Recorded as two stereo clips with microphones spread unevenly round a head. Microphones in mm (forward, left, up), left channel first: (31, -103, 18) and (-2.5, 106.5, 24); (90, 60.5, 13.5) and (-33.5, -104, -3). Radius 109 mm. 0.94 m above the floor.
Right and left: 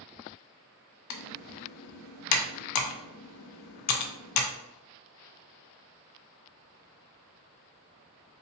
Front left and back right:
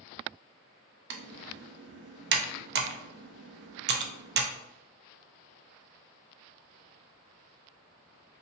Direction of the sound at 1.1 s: 90° right.